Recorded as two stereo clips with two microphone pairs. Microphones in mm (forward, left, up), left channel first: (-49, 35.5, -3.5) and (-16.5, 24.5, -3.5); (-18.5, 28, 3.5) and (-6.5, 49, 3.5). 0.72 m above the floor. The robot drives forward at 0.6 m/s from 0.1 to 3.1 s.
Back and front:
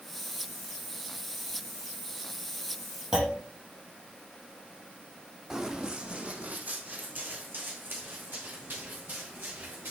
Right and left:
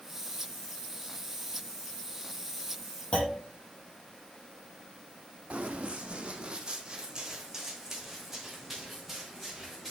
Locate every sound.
3.1 s a clunk: 90° right, 4.5 m
5.5 s running footsteps: 55° left, 1.8 m; by 9.9 s 35° right, 4.5 m